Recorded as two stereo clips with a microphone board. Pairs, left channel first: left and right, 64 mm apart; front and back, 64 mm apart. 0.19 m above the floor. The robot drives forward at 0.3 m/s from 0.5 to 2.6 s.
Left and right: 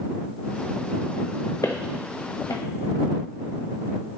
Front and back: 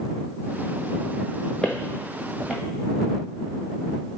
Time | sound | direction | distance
1.6 | footsteps | 80° left | 1.5 m